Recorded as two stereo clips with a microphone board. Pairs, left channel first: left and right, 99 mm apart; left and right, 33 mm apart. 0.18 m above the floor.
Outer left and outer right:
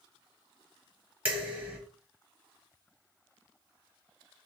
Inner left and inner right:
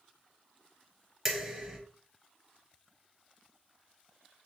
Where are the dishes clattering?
15° right (ahead or behind), 1.4 m.